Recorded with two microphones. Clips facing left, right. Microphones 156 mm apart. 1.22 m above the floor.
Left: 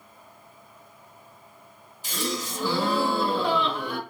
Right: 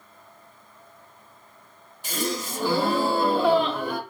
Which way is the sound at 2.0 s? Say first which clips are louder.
Right 2 dB; 55° right (ahead or behind).